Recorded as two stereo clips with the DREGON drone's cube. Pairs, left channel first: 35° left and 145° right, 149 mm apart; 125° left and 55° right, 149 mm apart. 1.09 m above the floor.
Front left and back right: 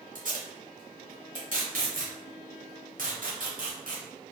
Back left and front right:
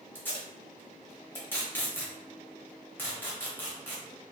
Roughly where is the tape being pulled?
Behind.